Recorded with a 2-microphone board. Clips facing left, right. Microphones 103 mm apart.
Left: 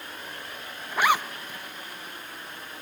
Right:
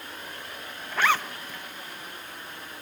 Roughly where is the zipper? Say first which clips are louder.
Left 1 dB; centre.